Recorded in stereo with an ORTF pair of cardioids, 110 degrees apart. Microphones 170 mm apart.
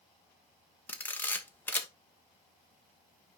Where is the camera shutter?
10° left, 1.4 m.